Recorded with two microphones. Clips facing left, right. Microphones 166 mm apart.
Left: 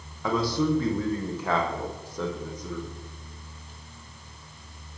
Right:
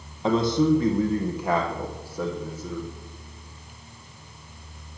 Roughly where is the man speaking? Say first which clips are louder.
Right 5 dB; right.